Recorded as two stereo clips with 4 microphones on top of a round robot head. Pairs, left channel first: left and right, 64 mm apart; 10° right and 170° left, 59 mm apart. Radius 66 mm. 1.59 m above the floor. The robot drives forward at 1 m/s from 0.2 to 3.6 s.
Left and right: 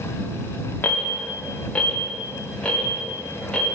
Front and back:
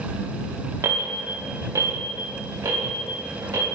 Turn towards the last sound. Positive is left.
turn(degrees=170)